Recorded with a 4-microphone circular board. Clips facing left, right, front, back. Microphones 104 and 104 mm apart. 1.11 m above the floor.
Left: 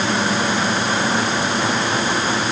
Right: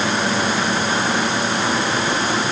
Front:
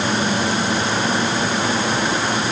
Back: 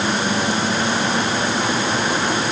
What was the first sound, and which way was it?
Only background noise.